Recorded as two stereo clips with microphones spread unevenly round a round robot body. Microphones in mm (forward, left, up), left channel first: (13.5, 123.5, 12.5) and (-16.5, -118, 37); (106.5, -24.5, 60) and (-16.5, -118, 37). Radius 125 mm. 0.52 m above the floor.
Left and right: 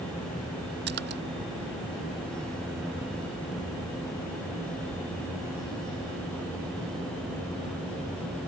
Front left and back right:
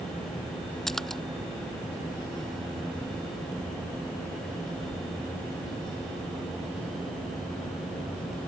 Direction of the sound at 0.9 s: 50° right.